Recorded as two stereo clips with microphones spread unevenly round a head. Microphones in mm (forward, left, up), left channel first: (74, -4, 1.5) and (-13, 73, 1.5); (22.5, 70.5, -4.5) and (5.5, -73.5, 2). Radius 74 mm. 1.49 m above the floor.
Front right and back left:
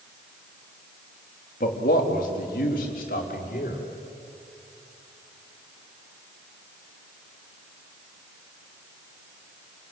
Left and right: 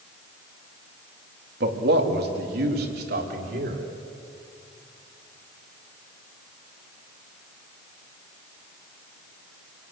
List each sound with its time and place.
1.6 s a man speaking: 80° right, 3 m